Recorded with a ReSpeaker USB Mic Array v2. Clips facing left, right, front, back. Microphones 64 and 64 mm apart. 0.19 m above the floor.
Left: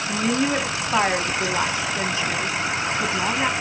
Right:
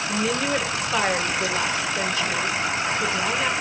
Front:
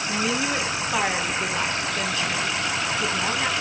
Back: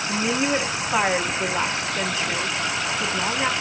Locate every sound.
0.1 s a woman speaking: 125° left, 1.1 m